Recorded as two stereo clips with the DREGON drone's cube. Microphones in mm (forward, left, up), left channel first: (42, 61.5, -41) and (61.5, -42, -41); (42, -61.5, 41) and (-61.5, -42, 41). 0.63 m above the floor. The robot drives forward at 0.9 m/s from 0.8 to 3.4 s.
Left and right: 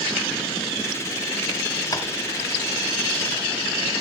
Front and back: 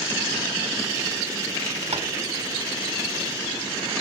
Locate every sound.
1.9 s tapping: 155° left, 0.8 m